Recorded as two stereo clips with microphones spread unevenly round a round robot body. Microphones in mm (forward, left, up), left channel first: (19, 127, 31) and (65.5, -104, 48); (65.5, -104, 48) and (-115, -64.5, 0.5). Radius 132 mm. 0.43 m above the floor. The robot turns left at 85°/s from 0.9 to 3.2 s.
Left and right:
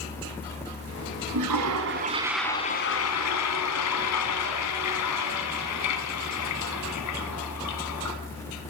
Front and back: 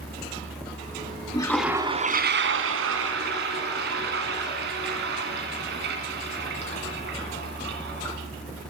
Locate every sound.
1.3 s a toilet flushing: 80° right, 1.5 m; by 8.2 s 120° left, 1.5 m